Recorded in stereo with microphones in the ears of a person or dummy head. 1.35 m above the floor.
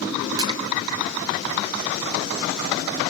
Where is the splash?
25° right (ahead or behind), 0.6 m.